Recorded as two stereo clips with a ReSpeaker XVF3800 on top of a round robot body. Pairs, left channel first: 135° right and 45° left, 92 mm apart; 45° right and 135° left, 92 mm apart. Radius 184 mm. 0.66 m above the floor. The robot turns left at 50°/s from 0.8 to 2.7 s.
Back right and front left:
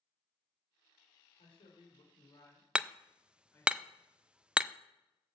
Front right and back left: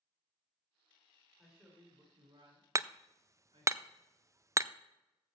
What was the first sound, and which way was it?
A man speaking, 135° right.